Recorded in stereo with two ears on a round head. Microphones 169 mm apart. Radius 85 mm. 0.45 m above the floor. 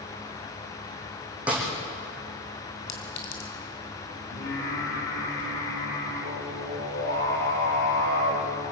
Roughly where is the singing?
Left.